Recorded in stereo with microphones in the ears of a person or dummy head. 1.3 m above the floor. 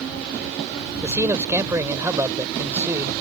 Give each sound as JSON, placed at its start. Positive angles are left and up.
{"t": 1.0, "sound": "a man speaking", "side_deg": -15}